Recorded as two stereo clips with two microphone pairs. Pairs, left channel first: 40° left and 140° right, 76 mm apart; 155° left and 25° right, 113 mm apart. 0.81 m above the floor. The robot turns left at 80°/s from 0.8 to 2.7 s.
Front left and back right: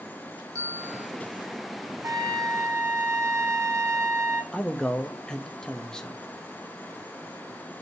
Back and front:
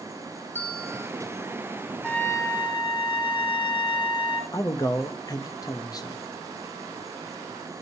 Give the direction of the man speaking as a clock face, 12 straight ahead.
8 o'clock.